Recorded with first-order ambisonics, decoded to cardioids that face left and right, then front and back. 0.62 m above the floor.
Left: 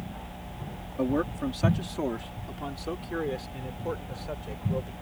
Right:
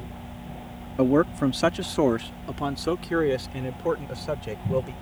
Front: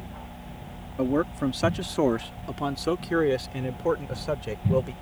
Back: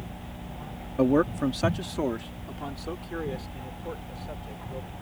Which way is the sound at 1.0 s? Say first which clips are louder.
Right 7 dB, back 2 dB; 115° right.